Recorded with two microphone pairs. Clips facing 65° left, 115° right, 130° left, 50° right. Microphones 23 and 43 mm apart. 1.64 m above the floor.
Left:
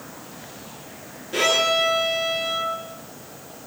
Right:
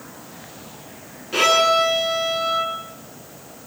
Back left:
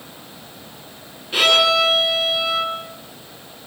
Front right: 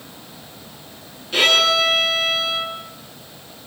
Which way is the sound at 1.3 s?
155° right.